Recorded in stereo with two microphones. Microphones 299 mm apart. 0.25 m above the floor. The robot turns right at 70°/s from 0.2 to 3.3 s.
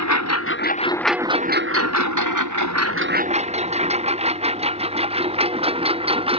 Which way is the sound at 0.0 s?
65° left (ahead or behind).